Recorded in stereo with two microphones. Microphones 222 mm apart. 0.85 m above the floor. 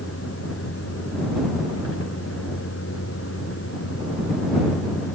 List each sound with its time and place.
0.0 s a vehicle: 75° left (ahead or behind)